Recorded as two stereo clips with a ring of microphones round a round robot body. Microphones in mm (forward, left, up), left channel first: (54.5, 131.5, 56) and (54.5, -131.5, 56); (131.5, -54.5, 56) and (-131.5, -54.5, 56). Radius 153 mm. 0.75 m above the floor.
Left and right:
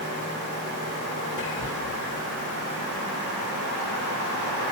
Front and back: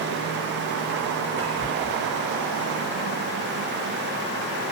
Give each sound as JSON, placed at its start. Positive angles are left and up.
{"t": 1.4, "sound": "whispering", "azimuth_deg": 140, "distance_m": 2.0}